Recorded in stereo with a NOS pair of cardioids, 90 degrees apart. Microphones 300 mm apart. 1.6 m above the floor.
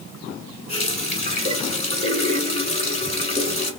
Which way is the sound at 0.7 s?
20° left.